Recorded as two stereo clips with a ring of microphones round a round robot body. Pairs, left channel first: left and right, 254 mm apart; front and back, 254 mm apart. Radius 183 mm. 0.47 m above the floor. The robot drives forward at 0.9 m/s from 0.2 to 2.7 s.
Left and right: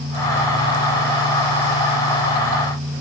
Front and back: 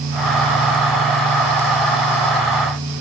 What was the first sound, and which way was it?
Only background noise.